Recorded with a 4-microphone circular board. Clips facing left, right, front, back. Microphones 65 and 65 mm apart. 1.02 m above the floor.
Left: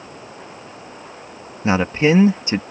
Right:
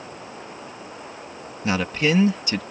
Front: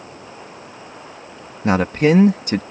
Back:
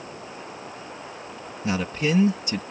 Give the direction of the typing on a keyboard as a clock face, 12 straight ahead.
No typing on a keyboard in this recording.